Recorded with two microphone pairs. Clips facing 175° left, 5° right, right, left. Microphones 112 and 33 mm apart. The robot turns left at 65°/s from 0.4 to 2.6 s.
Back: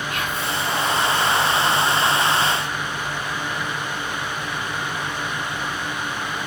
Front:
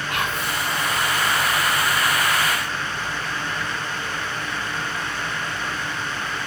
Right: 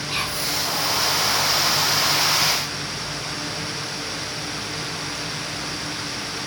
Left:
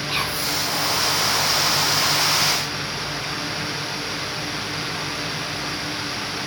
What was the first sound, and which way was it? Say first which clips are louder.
Whispering: front 2 dB, left 1 dB; 20° left.